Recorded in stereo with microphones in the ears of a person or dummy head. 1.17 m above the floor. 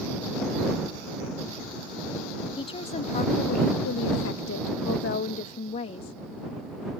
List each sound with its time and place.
2.6 s a woman speaking: 25° left (ahead or behind); by 6.2 s 35° left (ahead or behind)